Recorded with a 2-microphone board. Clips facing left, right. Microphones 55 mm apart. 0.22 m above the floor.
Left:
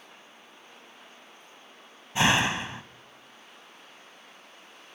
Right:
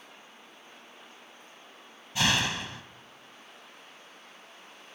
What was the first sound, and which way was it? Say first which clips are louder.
A door slam: left 4 dB; 25° left (ahead or behind).